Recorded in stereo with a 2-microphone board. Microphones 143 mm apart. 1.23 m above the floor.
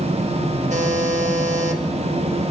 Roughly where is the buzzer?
Right.